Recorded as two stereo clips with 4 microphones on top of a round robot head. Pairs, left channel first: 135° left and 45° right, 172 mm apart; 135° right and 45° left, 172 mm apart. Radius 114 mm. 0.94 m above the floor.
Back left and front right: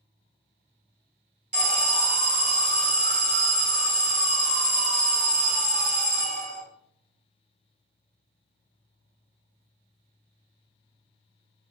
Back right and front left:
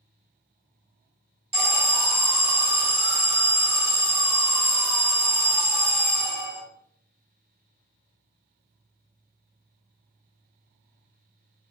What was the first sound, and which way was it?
An alarm, 5° right.